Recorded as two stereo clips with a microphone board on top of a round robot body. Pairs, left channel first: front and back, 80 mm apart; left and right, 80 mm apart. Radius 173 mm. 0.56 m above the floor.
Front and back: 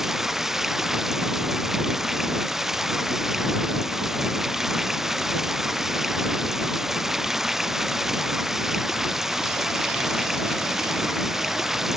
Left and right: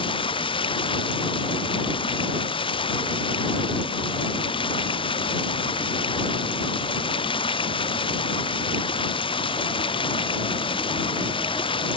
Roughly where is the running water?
Left.